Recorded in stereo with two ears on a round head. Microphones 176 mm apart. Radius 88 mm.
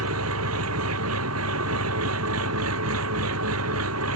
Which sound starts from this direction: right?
An engine running, at 0.0 s.